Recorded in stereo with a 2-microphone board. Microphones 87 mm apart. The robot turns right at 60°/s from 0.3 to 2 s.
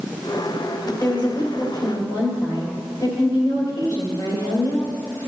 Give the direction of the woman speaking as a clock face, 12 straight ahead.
11 o'clock.